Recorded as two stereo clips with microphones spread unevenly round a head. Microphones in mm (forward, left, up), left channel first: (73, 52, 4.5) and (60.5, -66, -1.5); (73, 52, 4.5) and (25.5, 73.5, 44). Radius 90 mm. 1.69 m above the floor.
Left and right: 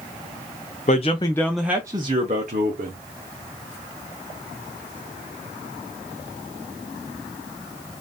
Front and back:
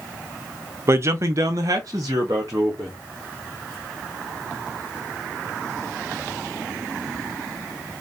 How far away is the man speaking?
About 0.6 m.